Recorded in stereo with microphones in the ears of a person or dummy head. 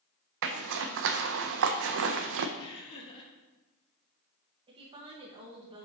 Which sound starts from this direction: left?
Laughter, at 2.6 s.